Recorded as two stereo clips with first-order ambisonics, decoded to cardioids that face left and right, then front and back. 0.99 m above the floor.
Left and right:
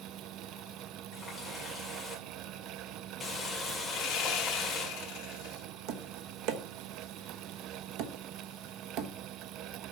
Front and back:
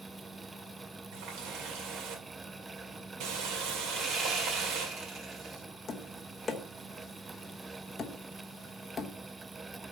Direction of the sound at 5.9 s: 75° right.